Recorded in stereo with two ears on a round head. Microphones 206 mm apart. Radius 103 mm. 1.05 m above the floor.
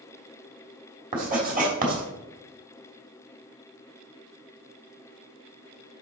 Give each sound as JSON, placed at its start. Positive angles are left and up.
{"t": 1.1, "sound": "writing", "side_deg": -40, "distance_m": 3.0}